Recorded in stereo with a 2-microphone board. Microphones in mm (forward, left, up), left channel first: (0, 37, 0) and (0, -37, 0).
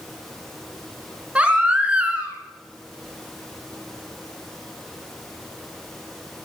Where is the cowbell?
I don't hear a cowbell.